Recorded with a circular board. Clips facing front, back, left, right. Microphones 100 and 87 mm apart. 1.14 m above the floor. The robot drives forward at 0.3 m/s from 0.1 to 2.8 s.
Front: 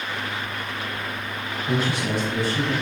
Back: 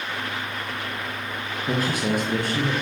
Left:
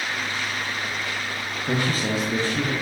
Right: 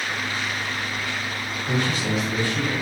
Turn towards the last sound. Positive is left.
turn(degrees=150)